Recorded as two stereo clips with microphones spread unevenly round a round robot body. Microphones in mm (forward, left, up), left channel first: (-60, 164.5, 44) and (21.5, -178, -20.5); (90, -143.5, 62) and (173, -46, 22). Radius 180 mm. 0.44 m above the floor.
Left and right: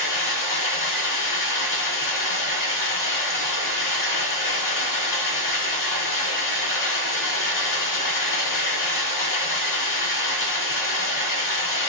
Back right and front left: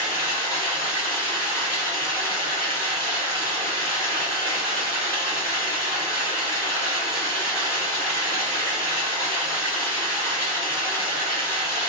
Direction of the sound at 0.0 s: 140° left.